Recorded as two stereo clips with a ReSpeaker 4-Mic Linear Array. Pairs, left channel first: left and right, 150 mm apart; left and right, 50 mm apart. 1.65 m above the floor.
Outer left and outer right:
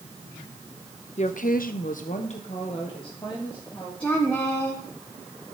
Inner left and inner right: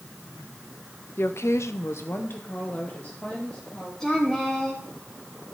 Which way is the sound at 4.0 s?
10° left (ahead or behind).